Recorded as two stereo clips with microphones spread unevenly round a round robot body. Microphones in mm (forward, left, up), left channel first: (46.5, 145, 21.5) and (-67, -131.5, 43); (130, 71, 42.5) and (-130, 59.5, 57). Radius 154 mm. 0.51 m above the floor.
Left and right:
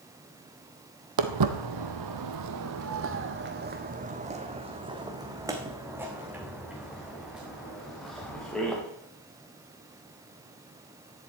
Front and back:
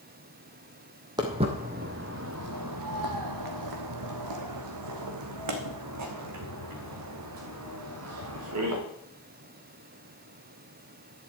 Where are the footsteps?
100° right, 1.2 m; by 8.8 s 155° left, 3.5 m.